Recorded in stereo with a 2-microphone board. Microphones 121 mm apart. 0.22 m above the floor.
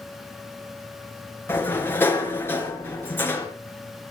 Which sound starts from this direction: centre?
A sliding door, at 1.5 s.